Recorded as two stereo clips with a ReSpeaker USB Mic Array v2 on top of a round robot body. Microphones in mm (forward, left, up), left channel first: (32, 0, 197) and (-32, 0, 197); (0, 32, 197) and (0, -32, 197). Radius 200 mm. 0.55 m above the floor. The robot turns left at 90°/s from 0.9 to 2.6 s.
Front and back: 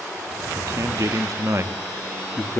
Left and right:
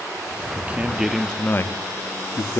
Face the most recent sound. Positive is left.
turn(degrees=50)